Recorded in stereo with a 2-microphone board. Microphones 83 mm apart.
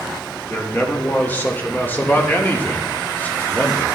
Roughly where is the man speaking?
Left.